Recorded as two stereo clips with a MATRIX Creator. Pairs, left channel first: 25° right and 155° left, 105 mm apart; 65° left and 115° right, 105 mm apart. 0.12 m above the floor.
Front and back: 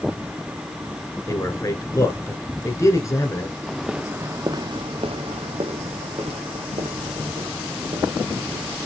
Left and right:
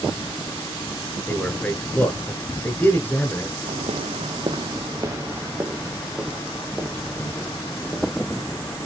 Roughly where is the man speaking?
Ahead.